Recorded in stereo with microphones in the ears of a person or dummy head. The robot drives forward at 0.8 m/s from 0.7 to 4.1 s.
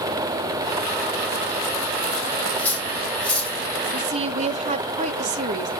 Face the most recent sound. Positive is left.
turn(degrees=-35)  # may be behind; listen again after turning